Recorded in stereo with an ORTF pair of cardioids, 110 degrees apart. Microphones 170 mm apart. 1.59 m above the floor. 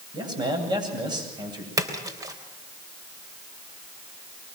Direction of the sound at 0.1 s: 25° right.